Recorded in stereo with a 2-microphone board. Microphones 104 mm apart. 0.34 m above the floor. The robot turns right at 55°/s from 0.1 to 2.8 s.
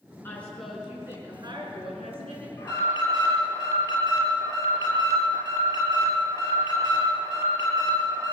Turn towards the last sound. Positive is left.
turn(degrees=35)  # may be behind; listen again after turning